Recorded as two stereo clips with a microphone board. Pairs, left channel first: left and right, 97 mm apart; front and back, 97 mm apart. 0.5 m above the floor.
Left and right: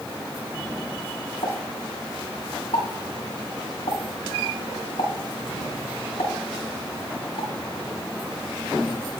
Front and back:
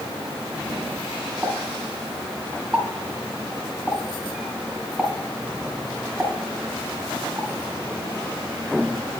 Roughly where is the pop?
Left.